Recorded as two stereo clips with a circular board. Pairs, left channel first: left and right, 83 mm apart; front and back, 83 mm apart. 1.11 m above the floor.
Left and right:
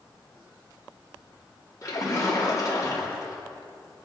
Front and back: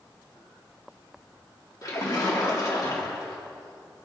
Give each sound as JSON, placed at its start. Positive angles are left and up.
{"t": 1.8, "sound": "a splash", "azimuth_deg": 45, "distance_m": 3.0}